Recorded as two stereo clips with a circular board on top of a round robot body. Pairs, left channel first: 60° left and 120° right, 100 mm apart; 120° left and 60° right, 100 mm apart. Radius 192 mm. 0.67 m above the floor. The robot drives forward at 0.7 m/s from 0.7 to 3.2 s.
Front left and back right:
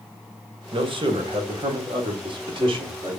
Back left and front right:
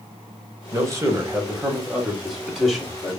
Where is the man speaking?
110° right, 1.5 m; by 3.2 s 155° right, 2.5 m.